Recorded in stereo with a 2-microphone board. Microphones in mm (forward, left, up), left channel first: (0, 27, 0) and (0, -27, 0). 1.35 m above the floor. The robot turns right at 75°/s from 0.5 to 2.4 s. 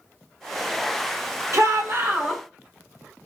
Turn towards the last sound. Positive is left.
turn(degrees=-5)